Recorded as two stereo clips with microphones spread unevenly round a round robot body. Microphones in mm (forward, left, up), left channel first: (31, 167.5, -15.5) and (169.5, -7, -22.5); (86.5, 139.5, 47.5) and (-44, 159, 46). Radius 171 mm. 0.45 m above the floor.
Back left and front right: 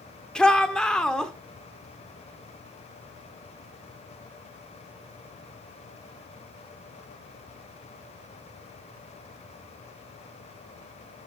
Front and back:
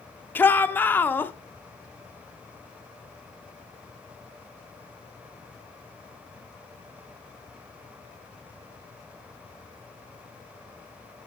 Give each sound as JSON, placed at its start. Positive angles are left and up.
{"t": 0.3, "sound": "a shout", "azimuth_deg": 45, "distance_m": 1.1}